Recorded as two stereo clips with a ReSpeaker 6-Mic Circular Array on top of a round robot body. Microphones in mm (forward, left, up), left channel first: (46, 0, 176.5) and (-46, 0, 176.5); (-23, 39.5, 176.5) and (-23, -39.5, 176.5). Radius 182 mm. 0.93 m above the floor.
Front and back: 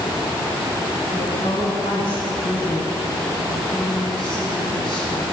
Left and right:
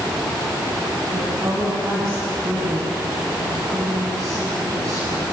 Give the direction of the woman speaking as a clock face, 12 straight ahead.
1 o'clock.